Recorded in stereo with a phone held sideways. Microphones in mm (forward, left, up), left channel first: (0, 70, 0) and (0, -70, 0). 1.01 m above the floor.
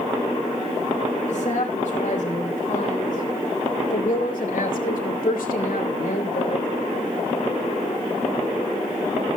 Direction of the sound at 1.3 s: 60° left (ahead or behind).